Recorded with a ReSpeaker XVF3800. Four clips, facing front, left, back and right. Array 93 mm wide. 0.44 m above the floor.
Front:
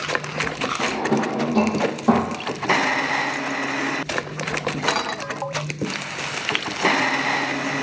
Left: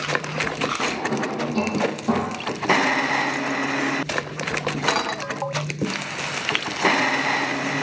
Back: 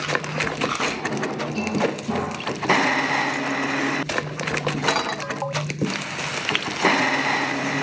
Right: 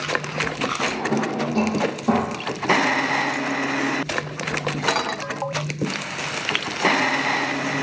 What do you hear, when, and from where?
0.8 s a drawer: 5° right, 4.5 m